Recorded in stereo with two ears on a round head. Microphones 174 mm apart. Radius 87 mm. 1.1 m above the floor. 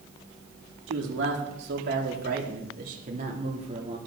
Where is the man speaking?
70° right (ahead or behind), 3 m; by 4.0 s 30° right (ahead or behind), 2.5 m.